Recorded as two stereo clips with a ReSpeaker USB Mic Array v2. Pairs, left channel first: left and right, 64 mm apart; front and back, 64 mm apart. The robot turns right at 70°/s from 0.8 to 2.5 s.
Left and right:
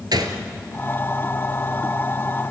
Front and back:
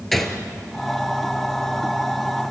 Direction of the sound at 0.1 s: 85° right.